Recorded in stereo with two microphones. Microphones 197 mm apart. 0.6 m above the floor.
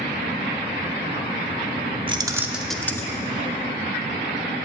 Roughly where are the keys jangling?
Right.